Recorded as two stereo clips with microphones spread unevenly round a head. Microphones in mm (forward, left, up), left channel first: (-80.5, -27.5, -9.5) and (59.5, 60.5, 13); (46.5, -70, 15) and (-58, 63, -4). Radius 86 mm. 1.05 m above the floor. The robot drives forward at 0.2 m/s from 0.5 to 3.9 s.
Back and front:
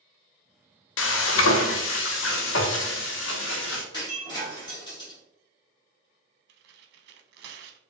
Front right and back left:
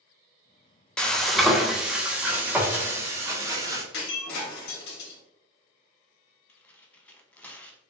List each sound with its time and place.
1.0 s frying: 135° right, 0.6 m; by 3.8 s 155° right, 1.1 m
3.9 s breaking glass: 80° right, 1.6 m
6.5 s tearing paper: 35° left, 0.6 m